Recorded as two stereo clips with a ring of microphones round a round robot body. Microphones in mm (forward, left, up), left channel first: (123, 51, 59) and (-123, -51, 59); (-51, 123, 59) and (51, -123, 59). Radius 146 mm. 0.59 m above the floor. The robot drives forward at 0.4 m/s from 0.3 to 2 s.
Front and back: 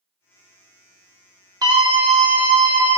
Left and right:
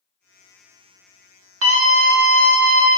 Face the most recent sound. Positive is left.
turn(degrees=-95)